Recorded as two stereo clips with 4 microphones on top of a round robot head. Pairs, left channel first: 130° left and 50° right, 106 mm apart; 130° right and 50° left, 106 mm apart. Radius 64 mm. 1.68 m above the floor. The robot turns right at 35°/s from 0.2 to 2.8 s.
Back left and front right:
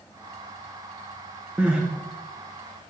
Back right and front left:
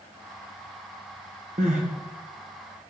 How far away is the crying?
About 1.1 m.